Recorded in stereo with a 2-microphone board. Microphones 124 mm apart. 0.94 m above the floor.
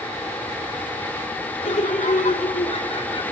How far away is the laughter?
About 2 m.